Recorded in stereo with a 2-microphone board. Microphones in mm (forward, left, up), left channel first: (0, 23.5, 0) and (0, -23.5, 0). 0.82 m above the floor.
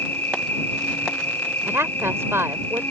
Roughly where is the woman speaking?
Right.